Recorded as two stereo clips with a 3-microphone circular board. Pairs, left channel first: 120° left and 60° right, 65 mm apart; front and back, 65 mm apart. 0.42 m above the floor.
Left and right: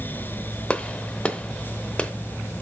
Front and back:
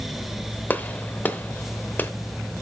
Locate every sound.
0.7 s a gunshot: 50° left, 0.8 m